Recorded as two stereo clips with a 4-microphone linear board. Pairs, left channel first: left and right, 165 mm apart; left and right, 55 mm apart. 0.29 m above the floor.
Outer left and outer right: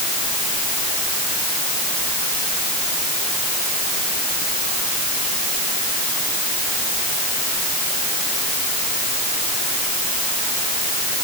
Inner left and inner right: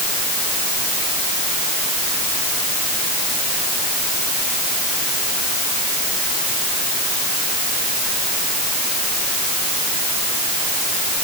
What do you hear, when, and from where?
Only background noise.